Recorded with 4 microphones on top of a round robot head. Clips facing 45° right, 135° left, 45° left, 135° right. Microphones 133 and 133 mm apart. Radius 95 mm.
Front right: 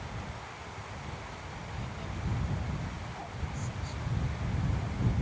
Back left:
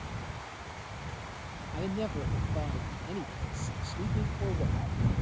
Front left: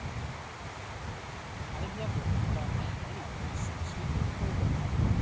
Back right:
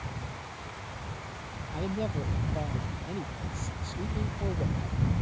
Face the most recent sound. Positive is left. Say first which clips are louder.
# back left 12 dB, back right 7 dB
turn(degrees=170)